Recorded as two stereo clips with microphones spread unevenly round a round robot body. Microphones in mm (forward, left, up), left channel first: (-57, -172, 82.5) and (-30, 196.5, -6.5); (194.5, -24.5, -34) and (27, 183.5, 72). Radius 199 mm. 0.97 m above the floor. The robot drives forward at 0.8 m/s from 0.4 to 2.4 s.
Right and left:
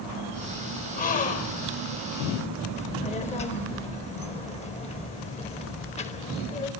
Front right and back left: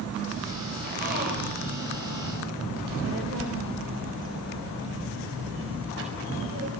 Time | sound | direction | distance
1.0 | a gasp | 165° right | 2.5 m
2.8 | a child speaking | 170° right | 4 m